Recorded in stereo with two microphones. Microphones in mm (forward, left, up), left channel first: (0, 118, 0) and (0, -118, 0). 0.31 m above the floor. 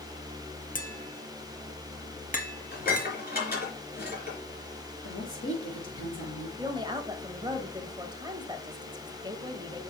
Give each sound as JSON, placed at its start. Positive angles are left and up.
{"t": 0.8, "sound": "tapping", "side_deg": 35, "distance_m": 1.5}
{"t": 2.7, "sound": "dishes clattering", "side_deg": 40, "distance_m": 3.5}
{"t": 5.0, "sound": "a woman speaking", "side_deg": 55, "distance_m": 4.5}
{"t": 6.6, "sound": "a woman speaking", "side_deg": -20, "distance_m": 1.1}